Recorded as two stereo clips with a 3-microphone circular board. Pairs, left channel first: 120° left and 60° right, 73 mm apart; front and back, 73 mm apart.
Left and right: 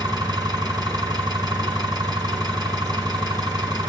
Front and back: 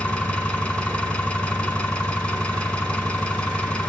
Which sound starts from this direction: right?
An engine running, at 0.0 s.